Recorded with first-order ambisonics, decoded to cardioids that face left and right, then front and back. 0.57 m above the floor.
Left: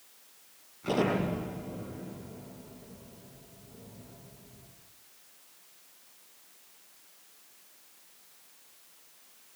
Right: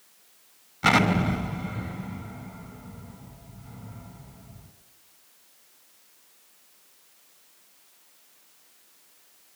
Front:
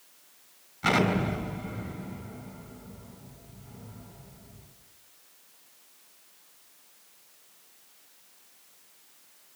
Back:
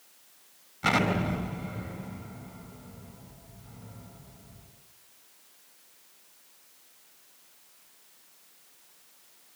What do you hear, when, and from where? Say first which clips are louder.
0.8 s an explosion: right 8 dB, front 1 dB; 95° right, 3.5 m